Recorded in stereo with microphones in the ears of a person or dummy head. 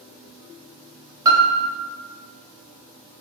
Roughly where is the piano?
Centre.